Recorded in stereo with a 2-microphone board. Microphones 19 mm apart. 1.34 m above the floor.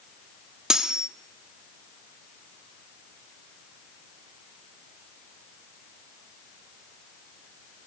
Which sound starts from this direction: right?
Cutlery clinking, at 0.7 s.